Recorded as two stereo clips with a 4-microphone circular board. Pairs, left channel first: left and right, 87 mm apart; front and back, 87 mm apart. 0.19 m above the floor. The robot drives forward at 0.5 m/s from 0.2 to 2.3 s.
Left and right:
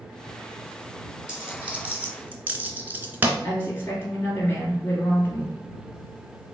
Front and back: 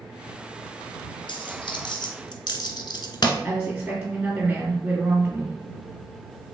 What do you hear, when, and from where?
1.3 s a dropped coin: 10° right, 1.1 m; by 3.3 s 25° right, 0.6 m
3.4 s a woman speaking: 130° left, 1.8 m